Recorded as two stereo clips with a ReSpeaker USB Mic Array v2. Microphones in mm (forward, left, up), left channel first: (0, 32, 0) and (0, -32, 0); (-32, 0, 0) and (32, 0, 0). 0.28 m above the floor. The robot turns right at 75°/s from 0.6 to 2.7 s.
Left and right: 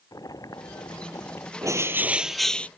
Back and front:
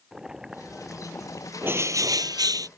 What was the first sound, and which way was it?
Boiling, 80° left.